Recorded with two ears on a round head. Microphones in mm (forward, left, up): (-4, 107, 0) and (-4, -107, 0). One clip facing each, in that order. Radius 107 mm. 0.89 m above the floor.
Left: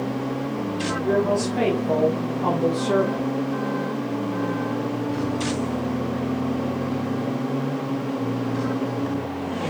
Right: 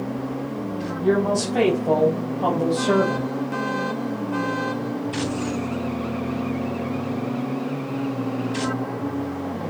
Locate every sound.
1.0 s a woman speaking: 85° right, 5.5 m